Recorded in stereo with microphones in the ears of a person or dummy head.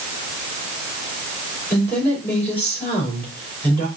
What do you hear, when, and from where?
1.7 s a woman speaking: 5° left (ahead or behind), 4 m